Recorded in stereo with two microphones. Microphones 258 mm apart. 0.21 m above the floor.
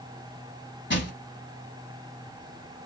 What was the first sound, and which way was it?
Crushing, 45° left (ahead or behind).